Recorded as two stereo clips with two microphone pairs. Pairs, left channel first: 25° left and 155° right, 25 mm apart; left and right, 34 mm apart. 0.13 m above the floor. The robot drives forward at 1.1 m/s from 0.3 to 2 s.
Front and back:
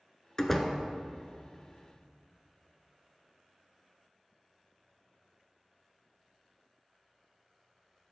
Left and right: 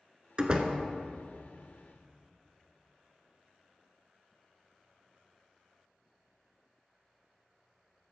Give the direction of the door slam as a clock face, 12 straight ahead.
1 o'clock.